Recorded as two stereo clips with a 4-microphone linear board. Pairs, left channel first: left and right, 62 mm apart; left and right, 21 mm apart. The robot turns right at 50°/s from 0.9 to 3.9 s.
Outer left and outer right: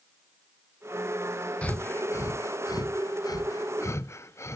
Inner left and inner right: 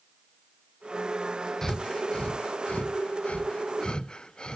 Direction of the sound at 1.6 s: 20° left (ahead or behind).